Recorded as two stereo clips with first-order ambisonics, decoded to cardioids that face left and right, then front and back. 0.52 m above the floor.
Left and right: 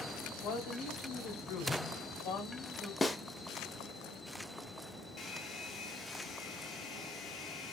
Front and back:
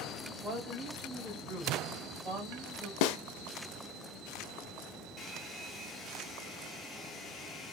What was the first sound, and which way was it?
A woman speaking, 125° left.